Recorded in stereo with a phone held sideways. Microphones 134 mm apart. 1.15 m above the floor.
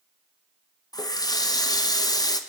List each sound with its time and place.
0.9 s a running tap: 30° left (ahead or behind), 0.5 m